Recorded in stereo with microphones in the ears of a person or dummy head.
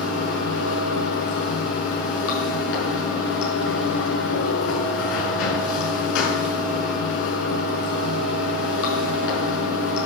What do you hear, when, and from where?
0.0 s running water: 70° left (ahead or behind), 5.5 m